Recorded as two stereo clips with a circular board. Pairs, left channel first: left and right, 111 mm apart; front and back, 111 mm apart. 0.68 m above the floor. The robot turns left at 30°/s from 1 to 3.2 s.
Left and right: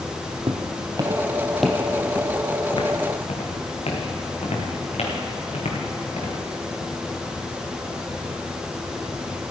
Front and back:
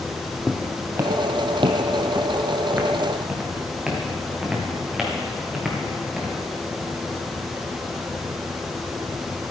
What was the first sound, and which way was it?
Footsteps, 90° right.